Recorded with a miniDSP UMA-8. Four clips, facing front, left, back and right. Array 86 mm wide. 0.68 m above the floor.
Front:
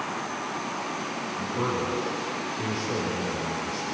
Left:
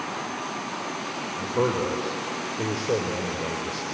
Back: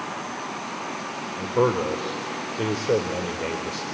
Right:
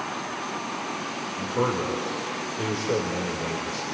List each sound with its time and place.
1.4 s a man speaking: 170° left, 2 m